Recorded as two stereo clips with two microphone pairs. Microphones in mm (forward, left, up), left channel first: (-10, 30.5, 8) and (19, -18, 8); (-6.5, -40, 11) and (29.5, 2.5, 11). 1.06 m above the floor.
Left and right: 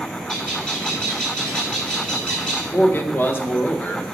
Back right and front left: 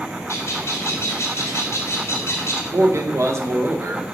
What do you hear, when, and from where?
0.3 s a bird: 165° right, 2.5 m
2.7 s a man speaking: 75° left, 0.8 m